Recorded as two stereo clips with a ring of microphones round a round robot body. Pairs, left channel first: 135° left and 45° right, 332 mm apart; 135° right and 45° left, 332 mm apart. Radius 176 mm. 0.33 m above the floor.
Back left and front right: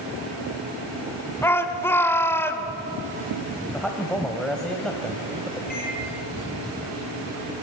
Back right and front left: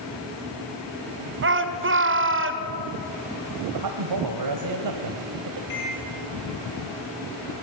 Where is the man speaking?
45° left, 1.7 m.